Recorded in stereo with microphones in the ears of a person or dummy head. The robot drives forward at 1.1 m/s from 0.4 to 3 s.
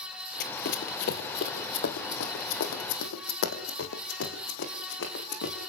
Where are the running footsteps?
50° left (ahead or behind), 2 m; by 5.6 s 70° left (ahead or behind), 7 m.